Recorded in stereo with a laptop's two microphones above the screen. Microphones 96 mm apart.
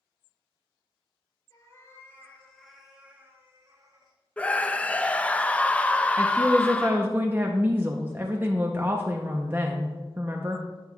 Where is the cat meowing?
35° left (ahead or behind), 2.5 m; by 4.2 s 50° right (ahead or behind), 2.5 m.